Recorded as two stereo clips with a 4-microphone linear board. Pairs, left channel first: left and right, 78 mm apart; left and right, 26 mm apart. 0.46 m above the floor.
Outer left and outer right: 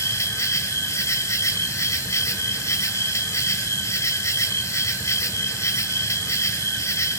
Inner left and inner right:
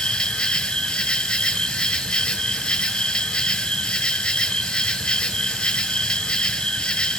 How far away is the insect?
About 1.0 m.